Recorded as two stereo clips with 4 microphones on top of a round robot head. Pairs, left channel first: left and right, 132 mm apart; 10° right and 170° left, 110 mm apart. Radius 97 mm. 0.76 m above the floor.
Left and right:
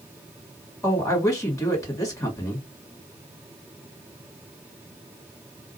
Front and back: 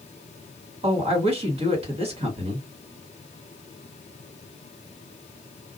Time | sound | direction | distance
0.8 | a man speaking | 155° left | 1.9 m